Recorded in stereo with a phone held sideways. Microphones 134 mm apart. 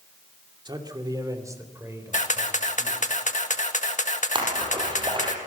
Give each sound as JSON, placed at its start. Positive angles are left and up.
{"t": 0.7, "sound": "a man speaking", "side_deg": -35, "distance_m": 2.5}
{"t": 2.1, "sound": "a camera shutter", "side_deg": 65, "distance_m": 1.6}
{"t": 4.3, "sound": "a splash", "side_deg": -35, "distance_m": 5.5}